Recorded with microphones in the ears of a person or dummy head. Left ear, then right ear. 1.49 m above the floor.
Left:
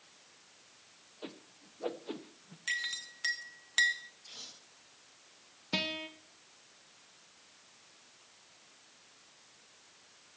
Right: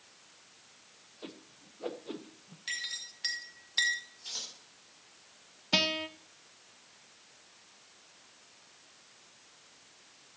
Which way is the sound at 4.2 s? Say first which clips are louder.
Right 10 dB; 55° right (ahead or behind).